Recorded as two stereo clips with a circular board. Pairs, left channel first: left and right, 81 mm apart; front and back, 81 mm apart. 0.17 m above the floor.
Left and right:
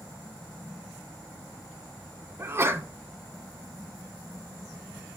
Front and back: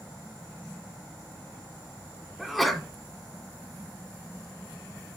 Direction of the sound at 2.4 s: 90° right.